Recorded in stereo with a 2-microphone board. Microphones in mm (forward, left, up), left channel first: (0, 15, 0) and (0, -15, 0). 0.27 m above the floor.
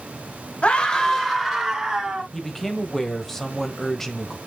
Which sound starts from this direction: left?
A scream, at 0.6 s.